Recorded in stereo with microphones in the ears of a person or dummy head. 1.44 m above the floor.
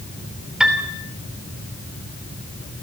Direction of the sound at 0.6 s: 5° right (ahead or behind).